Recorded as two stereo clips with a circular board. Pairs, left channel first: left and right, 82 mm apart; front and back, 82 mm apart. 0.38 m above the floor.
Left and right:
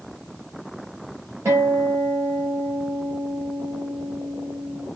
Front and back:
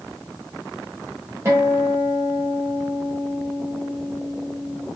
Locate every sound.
1.4 s a guitar: 135° right, 1.0 m